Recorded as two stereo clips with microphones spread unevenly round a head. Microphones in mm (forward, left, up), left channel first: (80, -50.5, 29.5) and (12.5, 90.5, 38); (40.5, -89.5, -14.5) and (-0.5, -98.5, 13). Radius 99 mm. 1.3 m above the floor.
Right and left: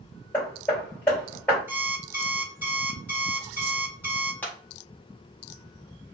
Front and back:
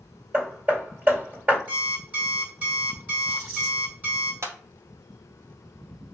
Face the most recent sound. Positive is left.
turn(degrees=-145)